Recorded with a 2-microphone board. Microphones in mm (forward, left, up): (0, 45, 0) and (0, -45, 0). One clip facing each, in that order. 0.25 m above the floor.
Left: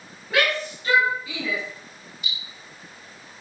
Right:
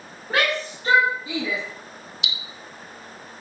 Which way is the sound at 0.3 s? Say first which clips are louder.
Even; 40° right (ahead or behind).